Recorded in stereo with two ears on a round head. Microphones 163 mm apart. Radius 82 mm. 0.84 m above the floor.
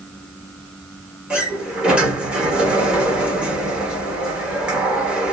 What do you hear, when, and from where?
1.3 s a sliding door: 5° right (ahead or behind), 0.9 m